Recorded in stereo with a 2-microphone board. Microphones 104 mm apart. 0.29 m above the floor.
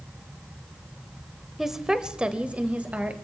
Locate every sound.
1.6 s a woman speaking: 5° right (ahead or behind), 0.9 m; by 3.1 s 15° right (ahead or behind), 1.2 m